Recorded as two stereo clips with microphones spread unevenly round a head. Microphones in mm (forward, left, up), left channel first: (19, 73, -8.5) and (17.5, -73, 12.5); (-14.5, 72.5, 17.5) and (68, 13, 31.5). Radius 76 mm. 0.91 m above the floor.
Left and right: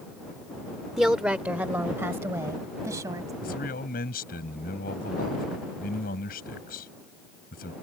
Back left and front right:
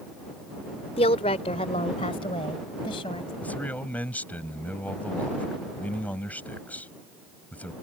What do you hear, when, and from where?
1.0 s a woman speaking: 175° right; by 3.3 s 160° right
3.4 s a man speaking: 70° left